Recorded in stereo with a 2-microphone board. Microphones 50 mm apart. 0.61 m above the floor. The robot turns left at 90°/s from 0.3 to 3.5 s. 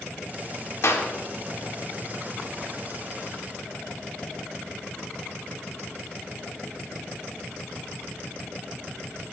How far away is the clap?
About 1.4 m.